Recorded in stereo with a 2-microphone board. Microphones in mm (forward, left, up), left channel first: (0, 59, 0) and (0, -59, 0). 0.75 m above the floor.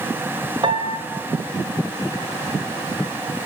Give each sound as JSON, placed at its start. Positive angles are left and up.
{"t": 0.6, "sound": "a piano", "side_deg": -45, "distance_m": 2.5}